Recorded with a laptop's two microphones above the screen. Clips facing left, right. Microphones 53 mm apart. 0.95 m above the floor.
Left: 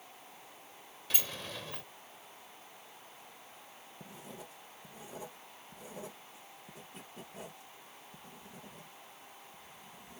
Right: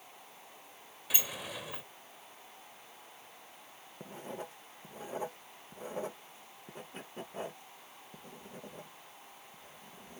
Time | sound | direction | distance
1.1 | a sliding door | 10° right (ahead or behind) | ?
4.0 | writing | 45° right (ahead or behind) | ?